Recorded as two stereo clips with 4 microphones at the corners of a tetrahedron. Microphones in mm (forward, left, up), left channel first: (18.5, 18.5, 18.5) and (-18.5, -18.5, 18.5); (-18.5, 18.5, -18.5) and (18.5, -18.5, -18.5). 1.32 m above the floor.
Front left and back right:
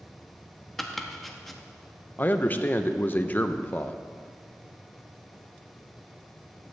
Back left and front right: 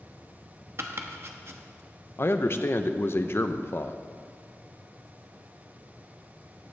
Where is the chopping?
45° right, 0.9 m.